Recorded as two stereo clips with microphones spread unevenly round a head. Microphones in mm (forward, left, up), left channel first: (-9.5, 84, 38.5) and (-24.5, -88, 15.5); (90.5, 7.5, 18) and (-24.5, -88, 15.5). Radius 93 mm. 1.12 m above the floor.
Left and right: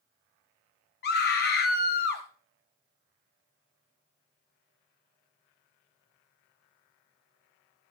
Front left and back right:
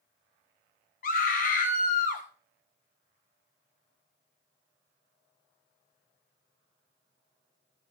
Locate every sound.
1.0 s a scream: 60° left, 1.0 m